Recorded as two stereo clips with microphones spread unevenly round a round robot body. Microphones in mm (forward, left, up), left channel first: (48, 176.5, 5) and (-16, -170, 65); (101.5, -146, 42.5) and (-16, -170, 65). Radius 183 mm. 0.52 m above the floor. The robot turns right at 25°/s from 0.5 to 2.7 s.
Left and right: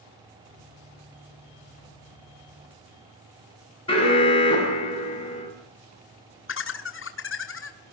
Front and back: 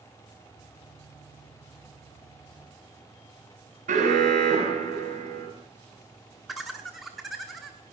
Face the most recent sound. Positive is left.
turn(degrees=90)